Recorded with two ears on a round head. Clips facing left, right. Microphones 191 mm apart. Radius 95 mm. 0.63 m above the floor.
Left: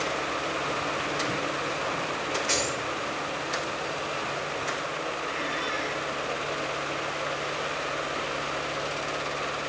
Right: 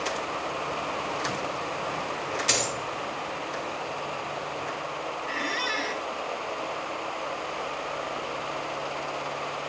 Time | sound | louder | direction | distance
2.5 | a dropped coin | right 1 dB | 50° right (ahead or behind) | 2.5 m
5.3 | a squeak | even | 60° right (ahead or behind) | 0.6 m